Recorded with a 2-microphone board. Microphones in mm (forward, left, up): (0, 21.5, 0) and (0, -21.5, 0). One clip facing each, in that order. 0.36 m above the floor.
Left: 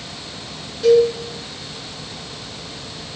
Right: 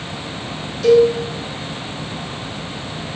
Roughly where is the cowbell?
Left.